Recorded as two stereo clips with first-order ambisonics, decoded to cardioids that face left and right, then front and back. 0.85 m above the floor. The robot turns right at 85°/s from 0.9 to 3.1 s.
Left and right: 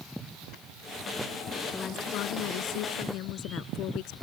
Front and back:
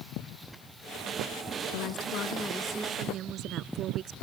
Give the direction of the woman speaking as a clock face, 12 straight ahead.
12 o'clock.